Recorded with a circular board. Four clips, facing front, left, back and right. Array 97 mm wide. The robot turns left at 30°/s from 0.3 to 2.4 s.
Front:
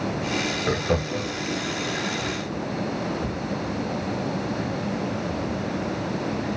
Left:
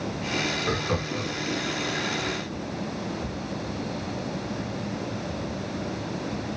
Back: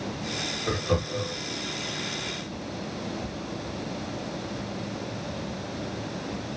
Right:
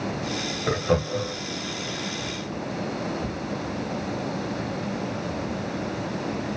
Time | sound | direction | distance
0.7 | laughter | 55° right | 1.8 m